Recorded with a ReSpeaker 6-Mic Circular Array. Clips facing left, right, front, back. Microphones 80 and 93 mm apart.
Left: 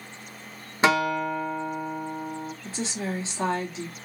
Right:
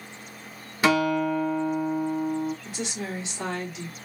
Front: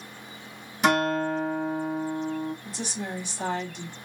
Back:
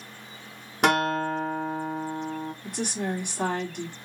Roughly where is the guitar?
Behind left.